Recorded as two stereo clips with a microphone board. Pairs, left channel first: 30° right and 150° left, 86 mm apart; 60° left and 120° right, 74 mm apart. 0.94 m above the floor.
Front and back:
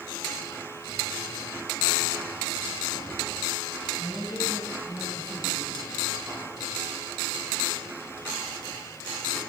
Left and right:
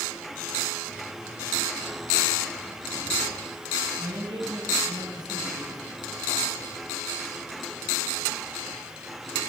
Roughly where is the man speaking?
Behind right.